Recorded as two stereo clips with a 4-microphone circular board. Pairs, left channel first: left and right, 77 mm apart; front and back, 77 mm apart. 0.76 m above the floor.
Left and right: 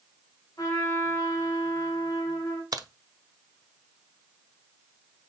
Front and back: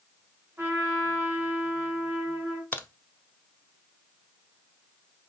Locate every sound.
0.6 s a trumpet: 120° left, 1.7 m
2.7 s a crack: 60° right, 0.5 m